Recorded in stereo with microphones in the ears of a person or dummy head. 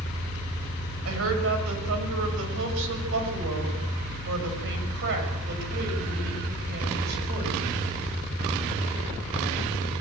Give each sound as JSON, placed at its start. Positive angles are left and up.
{"t": 1.1, "sound": "a woman speaking", "side_deg": -80, "distance_m": 7.0}